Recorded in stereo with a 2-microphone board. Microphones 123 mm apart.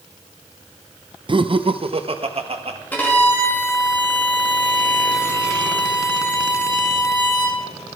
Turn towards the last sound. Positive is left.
turn(degrees=15)  # may be behind; listen again after turning